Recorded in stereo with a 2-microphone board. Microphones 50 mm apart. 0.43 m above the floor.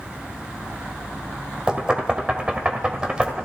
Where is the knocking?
20° right (ahead or behind), 1.6 m.